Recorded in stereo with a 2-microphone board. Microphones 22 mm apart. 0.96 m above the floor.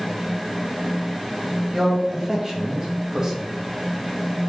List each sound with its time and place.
1.7 s a man speaking: 25° right (ahead or behind), 1.1 m